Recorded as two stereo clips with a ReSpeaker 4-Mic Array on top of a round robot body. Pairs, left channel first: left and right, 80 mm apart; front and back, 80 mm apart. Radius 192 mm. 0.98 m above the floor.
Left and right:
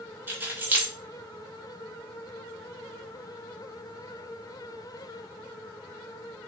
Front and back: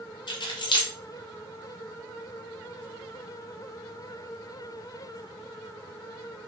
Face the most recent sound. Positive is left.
turn(degrees=-25)